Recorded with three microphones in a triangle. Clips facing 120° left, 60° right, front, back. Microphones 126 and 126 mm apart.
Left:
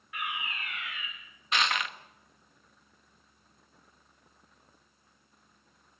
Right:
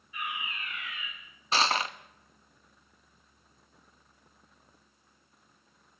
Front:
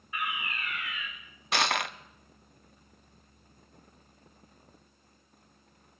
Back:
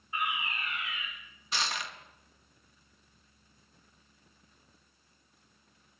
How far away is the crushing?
About 0.7 m.